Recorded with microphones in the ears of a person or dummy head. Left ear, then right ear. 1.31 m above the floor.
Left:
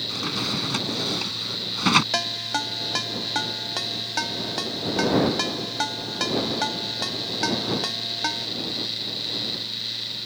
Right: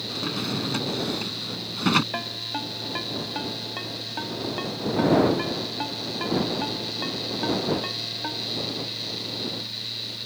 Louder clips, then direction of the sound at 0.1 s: Left 2 dB; 25° left (ahead or behind).